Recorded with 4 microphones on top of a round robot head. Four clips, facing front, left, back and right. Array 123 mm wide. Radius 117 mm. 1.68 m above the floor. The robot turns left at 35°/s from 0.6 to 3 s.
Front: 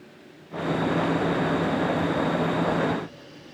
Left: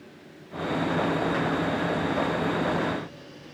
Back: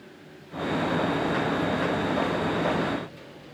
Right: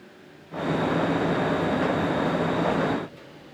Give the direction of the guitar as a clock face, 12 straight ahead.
No guitar in this recording.